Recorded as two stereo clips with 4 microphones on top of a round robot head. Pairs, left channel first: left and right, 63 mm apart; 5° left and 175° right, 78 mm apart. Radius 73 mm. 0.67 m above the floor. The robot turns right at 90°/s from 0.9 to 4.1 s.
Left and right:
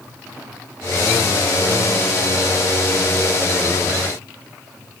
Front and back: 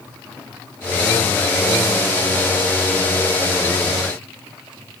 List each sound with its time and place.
Only background noise.